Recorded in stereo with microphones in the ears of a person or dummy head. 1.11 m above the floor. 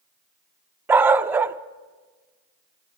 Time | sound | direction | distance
0.9 | a dog barking | 10° right (ahead or behind) | 0.6 m